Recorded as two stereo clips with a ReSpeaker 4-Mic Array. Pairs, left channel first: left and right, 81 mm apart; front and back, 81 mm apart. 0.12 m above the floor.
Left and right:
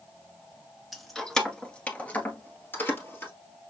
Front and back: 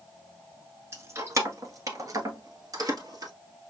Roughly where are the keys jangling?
Behind.